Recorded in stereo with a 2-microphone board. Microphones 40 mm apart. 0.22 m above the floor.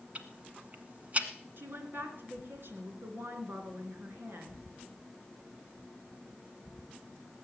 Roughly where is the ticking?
Right.